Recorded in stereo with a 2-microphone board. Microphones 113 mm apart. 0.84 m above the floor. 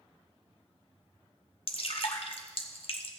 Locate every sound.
1.7 s dripping: 55° left (ahead or behind), 1.0 m